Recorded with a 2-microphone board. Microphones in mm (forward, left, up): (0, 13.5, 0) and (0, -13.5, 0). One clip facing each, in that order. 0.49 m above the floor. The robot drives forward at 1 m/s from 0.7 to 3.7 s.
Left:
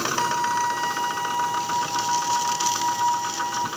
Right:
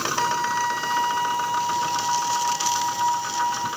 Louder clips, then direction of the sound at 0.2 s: Even; 5° right (ahead or behind).